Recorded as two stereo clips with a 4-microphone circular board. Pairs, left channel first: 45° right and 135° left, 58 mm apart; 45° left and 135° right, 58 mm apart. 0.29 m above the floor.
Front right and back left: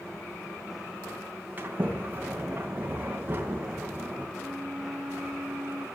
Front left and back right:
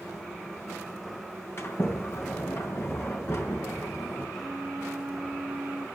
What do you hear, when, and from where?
1.6 s a sliding door: 80° left, 2.5 m
4.4 s a flute: 170° left, 1.5 m